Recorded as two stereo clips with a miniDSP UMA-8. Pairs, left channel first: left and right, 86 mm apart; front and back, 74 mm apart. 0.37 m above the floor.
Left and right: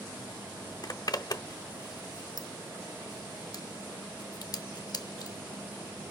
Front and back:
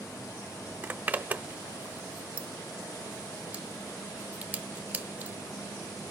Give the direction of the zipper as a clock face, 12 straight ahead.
8 o'clock.